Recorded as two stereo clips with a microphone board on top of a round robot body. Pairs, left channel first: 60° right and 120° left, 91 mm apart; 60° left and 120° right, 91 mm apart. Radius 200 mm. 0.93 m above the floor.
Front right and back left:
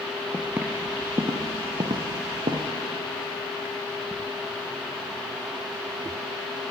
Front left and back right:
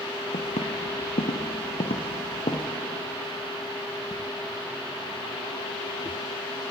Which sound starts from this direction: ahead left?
Footsteps, at 0.3 s.